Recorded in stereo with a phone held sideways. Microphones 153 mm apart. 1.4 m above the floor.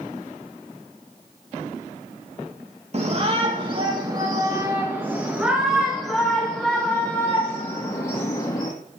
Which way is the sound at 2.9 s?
45° right (ahead or behind).